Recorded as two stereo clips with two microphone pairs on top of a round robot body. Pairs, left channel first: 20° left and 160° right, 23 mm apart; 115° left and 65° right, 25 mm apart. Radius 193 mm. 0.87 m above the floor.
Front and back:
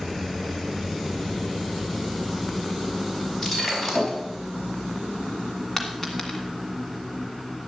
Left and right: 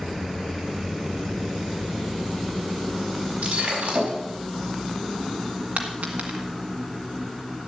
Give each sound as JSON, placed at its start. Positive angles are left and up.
{"t": 3.4, "sound": "breaking glass", "azimuth_deg": -70, "distance_m": 4.5}
{"t": 5.8, "sound": "a dropped coin", "azimuth_deg": -70, "distance_m": 1.9}